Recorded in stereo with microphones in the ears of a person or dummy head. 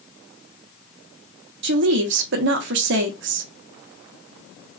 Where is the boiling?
I don't hear boiling.